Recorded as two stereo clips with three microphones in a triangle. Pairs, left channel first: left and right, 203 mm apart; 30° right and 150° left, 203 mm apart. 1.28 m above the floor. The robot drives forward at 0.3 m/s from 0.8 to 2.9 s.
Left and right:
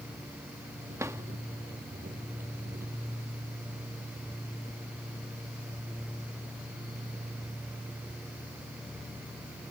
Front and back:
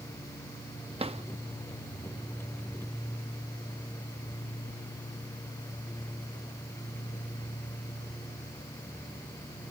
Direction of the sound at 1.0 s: 160° right.